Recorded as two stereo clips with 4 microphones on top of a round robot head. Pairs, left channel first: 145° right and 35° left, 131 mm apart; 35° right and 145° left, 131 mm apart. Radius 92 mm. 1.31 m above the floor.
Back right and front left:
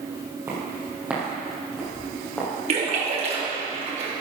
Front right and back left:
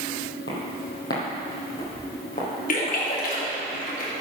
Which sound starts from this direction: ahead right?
Footsteps, at 0.5 s.